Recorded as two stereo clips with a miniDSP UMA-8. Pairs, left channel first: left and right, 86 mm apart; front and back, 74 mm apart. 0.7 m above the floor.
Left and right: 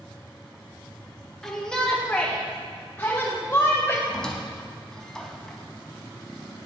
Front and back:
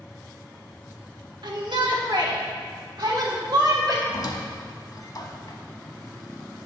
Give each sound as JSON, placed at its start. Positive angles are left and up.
{"t": 1.4, "sound": "a shout", "azimuth_deg": 175, "distance_m": 1.1}
{"t": 4.1, "sound": "a squeak", "azimuth_deg": 10, "distance_m": 0.8}